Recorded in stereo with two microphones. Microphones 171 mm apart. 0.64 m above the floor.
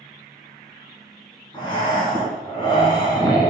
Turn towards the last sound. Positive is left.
turn(degrees=25)  # may be behind; listen again after turning